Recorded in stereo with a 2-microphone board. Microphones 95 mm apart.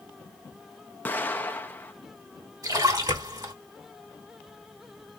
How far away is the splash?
About 2.5 m.